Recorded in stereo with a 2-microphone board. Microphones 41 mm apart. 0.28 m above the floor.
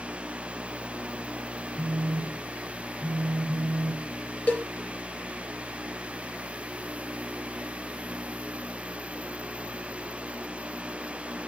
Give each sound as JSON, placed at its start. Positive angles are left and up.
{"t": 1.8, "sound": "a phone buzzing", "side_deg": 25, "distance_m": 1.4}
{"t": 4.5, "sound": "a cowbell", "side_deg": 45, "distance_m": 1.9}